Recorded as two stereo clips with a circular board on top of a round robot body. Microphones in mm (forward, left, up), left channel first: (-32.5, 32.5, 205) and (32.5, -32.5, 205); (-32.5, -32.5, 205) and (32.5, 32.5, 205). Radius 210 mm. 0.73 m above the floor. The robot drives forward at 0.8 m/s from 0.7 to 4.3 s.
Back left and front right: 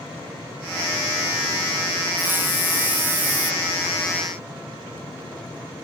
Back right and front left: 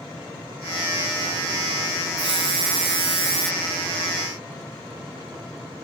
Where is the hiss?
25° left; by 3.5 s 30° left.